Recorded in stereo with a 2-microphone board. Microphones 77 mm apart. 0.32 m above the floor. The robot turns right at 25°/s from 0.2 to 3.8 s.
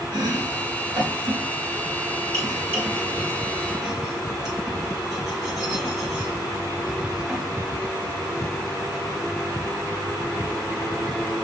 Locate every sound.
0.1 s chopping: 80° right, 3.5 m; by 7.5 s 5° right (ahead or behind), 3.5 m